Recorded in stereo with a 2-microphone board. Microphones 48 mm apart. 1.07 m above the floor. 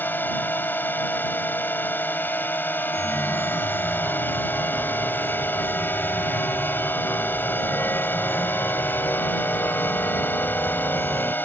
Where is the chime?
75° left (ahead or behind).